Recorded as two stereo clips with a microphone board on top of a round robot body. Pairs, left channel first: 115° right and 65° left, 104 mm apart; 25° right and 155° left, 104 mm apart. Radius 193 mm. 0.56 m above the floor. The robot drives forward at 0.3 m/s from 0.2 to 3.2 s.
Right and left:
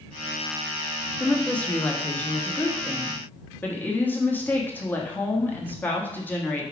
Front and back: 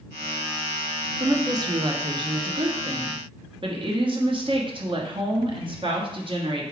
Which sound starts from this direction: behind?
A woman speaking, at 1.2 s.